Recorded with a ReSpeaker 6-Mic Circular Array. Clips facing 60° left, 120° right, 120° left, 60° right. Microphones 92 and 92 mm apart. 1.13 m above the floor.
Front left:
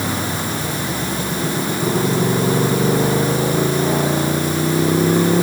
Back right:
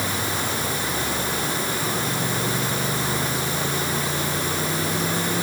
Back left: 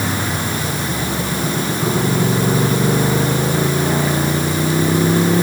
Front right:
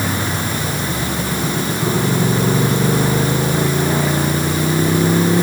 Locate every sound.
0.0 s a motorcycle: 30° left